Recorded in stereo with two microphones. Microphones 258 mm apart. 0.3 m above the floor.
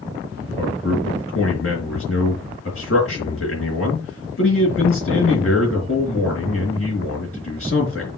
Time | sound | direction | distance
0.6 | a man speaking | 55° left (ahead or behind) | 4 m